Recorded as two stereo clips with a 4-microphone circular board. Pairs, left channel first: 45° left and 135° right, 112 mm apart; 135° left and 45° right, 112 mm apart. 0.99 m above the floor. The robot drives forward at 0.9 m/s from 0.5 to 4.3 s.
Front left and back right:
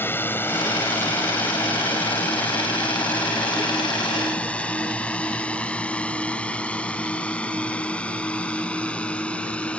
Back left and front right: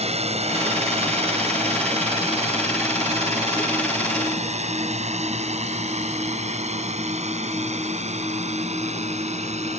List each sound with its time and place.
0.0 s a drone: 25° right; by 9.8 s 35° right